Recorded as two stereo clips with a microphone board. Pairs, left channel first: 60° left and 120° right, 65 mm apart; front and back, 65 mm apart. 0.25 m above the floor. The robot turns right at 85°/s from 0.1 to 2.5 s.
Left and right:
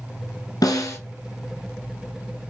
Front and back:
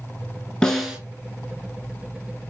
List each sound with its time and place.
0.6 s a snare drum: 75° left, 0.8 m; by 1.0 s 110° left, 0.8 m